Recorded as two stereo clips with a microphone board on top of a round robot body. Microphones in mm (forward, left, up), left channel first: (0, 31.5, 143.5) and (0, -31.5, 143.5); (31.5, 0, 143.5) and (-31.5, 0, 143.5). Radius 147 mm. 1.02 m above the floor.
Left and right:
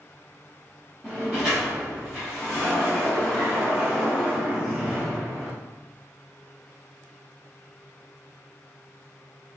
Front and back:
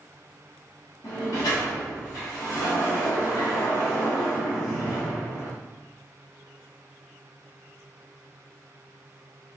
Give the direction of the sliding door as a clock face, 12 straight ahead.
12 o'clock.